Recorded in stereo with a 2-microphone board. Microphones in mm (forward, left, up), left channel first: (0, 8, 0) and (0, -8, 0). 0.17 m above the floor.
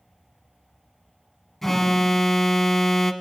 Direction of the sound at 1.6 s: 20° left (ahead or behind).